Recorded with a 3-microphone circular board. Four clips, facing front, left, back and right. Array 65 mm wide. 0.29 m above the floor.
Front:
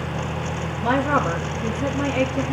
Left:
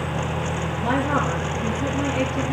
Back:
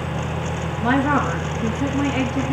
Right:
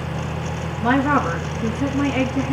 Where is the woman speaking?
135° right, 4.5 m.